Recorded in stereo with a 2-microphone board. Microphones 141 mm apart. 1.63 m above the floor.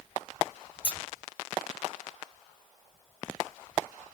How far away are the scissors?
About 1.1 m.